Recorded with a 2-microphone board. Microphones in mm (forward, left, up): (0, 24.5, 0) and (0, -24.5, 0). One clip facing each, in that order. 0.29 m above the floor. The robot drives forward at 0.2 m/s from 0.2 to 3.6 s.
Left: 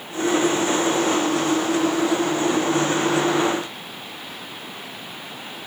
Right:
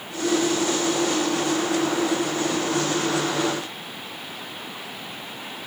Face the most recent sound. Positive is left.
No sound to turn to.